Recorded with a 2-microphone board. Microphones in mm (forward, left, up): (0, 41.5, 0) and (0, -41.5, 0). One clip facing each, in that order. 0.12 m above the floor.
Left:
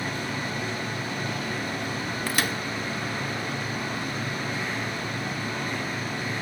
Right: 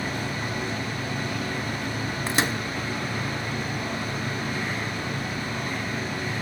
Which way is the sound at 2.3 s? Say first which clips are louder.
Right 3 dB; 25° right (ahead or behind).